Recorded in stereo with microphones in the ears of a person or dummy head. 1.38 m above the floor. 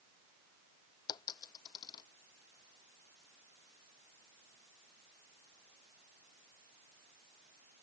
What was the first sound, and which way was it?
A dropped coin, 25° left (ahead or behind).